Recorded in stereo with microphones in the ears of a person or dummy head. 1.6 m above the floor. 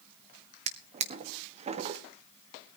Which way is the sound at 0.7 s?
40° right (ahead or behind).